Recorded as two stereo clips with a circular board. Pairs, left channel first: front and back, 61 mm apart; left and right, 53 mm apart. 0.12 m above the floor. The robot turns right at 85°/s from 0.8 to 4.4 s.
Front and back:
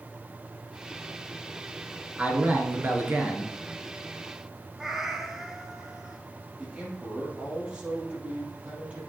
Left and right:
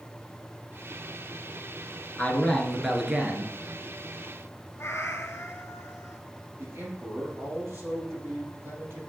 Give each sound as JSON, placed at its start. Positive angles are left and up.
{"t": 2.2, "sound": "a man speaking", "azimuth_deg": 125, "distance_m": 1.4}
{"t": 4.8, "sound": "a cat meowing", "azimuth_deg": 100, "distance_m": 1.0}
{"t": 6.6, "sound": "a man speaking", "azimuth_deg": -110, "distance_m": 4.0}